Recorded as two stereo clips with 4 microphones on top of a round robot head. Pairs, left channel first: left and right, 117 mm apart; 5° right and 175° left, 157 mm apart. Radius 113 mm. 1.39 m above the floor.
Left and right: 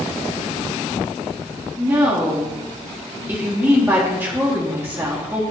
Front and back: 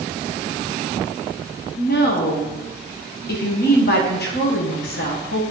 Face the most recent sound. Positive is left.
turn(degrees=-15)